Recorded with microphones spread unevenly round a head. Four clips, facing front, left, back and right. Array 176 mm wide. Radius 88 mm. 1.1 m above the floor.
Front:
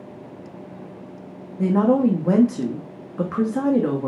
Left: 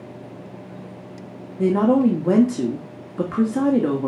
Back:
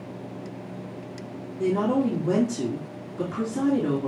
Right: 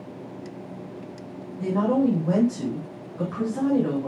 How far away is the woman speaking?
About 1.8 m.